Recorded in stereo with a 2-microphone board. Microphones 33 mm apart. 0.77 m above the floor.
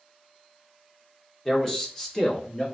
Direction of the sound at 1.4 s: 10° left (ahead or behind).